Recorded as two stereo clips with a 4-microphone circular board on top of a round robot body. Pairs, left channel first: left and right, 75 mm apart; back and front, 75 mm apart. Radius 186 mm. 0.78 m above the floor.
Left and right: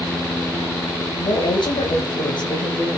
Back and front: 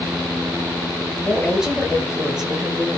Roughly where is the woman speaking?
Left.